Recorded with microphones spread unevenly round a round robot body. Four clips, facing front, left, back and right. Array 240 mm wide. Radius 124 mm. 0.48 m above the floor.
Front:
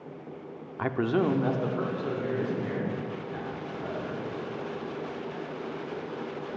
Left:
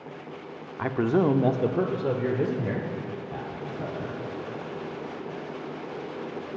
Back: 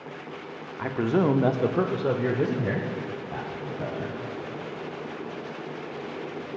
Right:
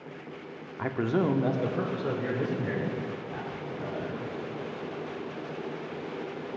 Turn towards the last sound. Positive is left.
turn(degrees=160)